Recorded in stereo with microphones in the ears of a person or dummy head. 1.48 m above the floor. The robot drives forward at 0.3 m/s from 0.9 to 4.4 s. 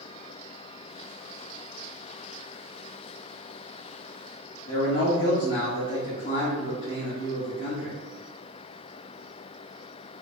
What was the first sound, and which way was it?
A man speaking, 45° left (ahead or behind).